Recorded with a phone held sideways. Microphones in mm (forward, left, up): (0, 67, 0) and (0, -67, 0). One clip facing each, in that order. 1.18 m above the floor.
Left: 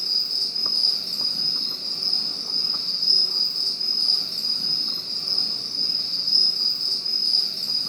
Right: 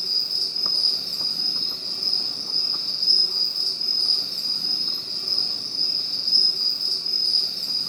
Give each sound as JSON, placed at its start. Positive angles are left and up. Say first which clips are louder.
{"t": 0.0, "sound": "an insect", "louder": "right 1 dB", "side_deg": -10, "distance_m": 2.5}